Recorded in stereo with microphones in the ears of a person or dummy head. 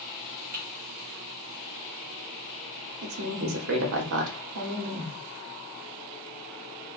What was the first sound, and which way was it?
Typing on a keyboard, 40° right (ahead or behind).